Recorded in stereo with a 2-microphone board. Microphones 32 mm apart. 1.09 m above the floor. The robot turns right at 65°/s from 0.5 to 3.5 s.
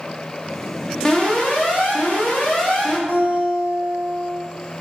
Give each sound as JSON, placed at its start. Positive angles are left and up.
{"t": 1.1, "sound": "an alarm", "azimuth_deg": 25, "distance_m": 0.7}
{"t": 3.1, "sound": "a guitar", "side_deg": -70, "distance_m": 1.3}